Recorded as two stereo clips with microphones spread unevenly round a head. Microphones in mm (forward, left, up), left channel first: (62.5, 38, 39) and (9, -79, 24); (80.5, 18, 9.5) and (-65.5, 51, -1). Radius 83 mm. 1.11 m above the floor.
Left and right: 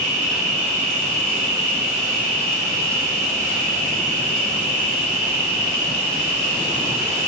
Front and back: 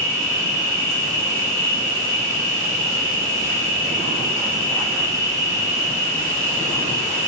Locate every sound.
0.0 s an insect: 85° right, 4.5 m